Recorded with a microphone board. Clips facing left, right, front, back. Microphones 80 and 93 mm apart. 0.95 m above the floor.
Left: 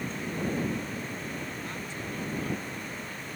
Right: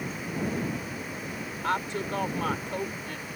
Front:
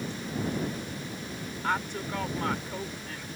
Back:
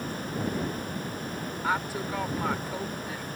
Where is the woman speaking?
95° right.